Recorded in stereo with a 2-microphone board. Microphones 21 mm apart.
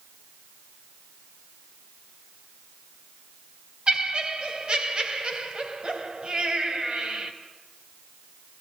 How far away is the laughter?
About 1.6 m.